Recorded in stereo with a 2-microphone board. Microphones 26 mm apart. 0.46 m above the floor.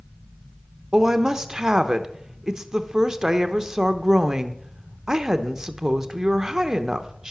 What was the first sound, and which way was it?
A woman speaking, 20° right (ahead or behind).